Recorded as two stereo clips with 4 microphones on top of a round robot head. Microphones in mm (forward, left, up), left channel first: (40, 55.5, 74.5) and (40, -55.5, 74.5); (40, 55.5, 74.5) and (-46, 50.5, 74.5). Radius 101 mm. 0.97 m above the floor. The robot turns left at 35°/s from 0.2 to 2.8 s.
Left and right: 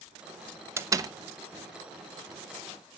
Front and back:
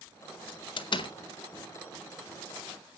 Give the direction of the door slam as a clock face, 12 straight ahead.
1 o'clock.